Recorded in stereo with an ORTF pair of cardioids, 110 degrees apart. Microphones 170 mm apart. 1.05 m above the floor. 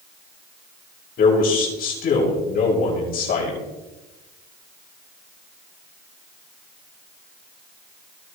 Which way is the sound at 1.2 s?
60° left.